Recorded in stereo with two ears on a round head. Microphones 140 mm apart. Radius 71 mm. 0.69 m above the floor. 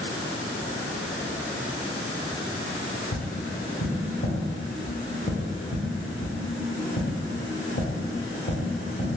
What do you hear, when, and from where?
3.1 s tapping: 55° left (ahead or behind), 1.0 m